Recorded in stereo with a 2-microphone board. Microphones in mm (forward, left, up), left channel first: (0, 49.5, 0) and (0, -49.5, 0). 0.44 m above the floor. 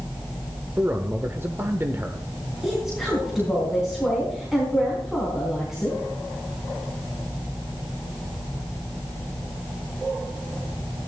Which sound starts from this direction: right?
A man speaking, at 0.8 s.